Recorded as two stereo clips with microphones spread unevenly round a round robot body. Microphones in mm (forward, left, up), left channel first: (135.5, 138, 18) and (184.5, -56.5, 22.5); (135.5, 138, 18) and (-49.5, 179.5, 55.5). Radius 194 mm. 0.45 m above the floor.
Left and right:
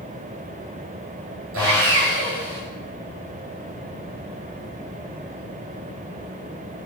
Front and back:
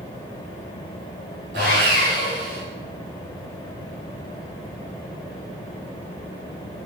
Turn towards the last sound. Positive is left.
turn(degrees=-130)